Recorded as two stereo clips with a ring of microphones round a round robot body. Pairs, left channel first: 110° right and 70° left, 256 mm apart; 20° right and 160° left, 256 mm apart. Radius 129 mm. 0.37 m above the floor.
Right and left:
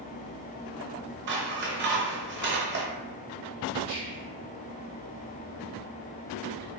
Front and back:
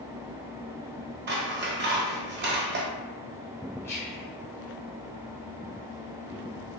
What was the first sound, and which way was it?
Scissors, 110° left.